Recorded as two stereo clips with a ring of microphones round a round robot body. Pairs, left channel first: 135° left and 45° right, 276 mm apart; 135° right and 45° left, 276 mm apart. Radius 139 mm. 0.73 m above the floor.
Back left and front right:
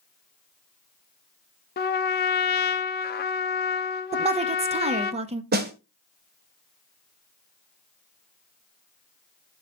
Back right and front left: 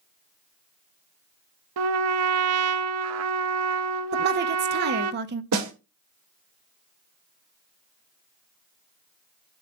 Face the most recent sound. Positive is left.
turn(degrees=10)